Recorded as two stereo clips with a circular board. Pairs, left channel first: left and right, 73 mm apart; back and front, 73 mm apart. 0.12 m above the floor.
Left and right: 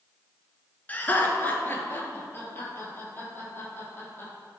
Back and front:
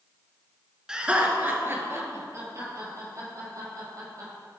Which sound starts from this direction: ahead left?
Laughter, at 0.9 s.